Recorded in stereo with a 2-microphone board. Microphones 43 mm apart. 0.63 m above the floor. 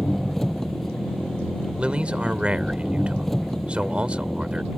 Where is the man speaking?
30° right (ahead or behind).